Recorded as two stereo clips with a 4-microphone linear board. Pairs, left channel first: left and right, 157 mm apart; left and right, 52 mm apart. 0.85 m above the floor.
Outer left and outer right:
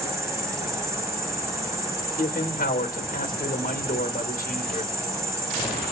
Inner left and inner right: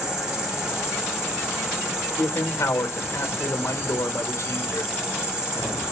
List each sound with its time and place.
0.0 s an insect: 20° right (ahead or behind), 2.0 m
2.2 s a man speaking: 55° left (ahead or behind), 1.1 m